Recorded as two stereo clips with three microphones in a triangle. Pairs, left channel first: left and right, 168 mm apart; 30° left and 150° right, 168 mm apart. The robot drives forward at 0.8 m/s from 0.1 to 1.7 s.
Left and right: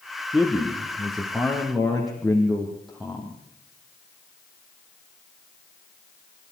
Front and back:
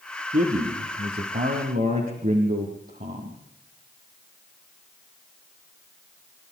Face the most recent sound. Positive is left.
turn(degrees=180)